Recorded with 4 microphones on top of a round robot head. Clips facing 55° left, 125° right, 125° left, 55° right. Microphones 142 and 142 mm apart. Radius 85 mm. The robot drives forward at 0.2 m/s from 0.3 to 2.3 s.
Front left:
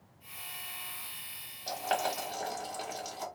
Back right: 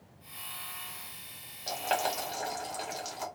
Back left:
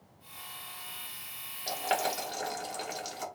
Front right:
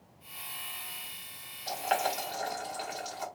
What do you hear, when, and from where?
1.7 s boiling: 150° left, 1.3 m; by 3.3 s 155° left, 1.4 m